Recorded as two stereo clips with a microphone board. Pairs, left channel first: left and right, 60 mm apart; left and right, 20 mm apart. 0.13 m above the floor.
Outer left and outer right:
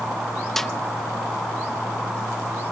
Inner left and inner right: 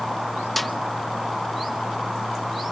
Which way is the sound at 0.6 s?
5° left (ahead or behind).